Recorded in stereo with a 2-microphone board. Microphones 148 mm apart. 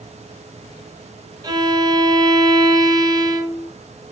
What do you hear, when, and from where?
1.4 s a violin: 25° right (ahead or behind), 0.5 m